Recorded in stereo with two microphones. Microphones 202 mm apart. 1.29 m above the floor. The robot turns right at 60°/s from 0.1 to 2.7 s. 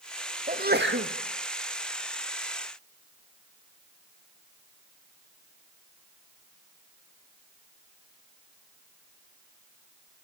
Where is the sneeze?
140° right, 2 m; by 1.1 s 100° right, 2 m.